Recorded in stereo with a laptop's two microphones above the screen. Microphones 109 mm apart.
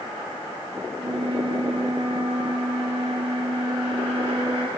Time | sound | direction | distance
1.0 | a flute | 60° right (ahead or behind) | 7 m